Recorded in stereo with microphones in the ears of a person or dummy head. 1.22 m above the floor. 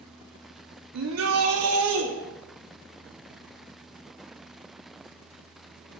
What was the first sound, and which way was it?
A shout, 70° right (ahead or behind).